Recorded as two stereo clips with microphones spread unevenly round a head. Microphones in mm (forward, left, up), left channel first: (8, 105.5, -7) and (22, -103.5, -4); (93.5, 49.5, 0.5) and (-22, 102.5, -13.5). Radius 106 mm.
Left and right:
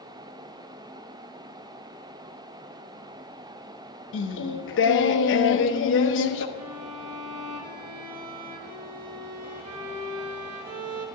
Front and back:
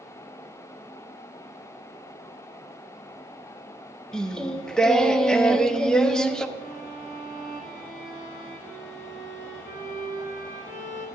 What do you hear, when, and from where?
4.1 s singing: 60° left, 0.8 m
6.6 s a violin: 80° right, 1.1 m